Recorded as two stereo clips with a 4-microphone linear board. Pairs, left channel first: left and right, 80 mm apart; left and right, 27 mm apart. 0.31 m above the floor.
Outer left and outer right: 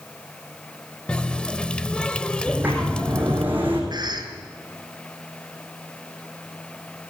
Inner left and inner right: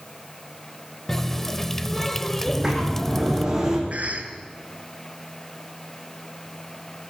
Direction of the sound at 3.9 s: 60° right (ahead or behind).